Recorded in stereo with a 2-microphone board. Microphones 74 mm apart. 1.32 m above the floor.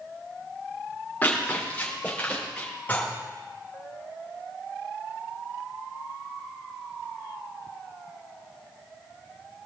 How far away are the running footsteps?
About 6 m.